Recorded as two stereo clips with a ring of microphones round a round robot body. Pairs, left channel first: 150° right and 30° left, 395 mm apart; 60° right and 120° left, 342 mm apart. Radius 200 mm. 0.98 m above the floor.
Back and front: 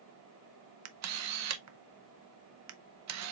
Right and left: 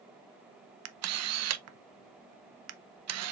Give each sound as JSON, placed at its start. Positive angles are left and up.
{"t": 0.8, "sound": "a camera shutter", "azimuth_deg": 75, "distance_m": 0.6}